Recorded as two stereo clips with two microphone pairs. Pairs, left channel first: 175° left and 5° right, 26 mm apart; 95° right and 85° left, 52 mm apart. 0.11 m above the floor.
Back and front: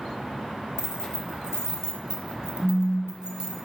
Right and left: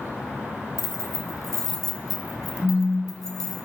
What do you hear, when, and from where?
0.8 s keys jangling: 5° right, 1.2 m
2.6 s a phone buzzing: 35° left, 0.8 m